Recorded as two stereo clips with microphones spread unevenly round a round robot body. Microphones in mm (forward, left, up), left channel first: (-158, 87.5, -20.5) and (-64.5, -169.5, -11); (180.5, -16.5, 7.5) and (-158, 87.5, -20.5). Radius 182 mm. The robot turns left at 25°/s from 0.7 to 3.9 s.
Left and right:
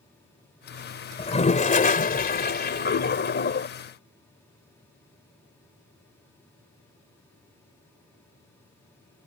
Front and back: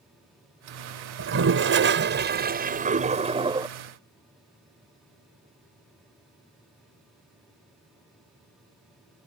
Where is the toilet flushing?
155° left; by 3.7 s 95° left.